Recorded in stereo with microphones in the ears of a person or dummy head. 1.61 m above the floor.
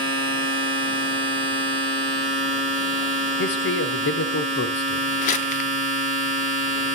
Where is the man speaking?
60° left (ahead or behind), 0.8 m.